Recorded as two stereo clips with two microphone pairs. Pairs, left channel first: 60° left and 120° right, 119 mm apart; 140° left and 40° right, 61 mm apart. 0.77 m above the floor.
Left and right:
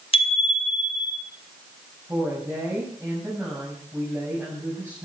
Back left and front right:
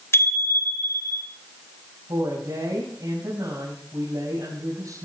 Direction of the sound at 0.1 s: 95° left.